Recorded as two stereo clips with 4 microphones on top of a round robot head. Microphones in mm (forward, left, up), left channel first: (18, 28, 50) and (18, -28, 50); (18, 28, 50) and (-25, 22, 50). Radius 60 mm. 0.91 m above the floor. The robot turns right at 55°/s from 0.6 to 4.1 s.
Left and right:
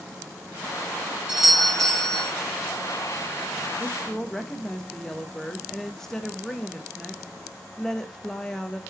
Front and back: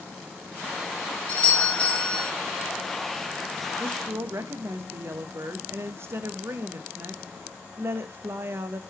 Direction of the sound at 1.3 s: 25° right.